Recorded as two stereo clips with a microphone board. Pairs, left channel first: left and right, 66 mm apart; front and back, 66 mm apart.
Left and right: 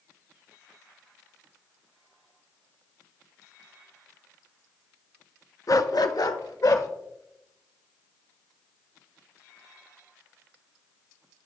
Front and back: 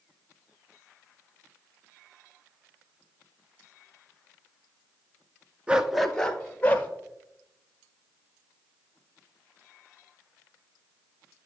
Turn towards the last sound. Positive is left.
turn(degrees=65)